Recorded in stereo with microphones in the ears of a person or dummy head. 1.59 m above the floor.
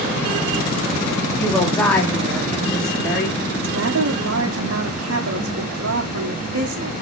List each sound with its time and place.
1.4 s a woman speaking: 15° left (ahead or behind), 3 m; by 3.5 s 10° left (ahead or behind), 4.5 m
3.5 s a woman speaking: 65° right (ahead or behind), 1.7 m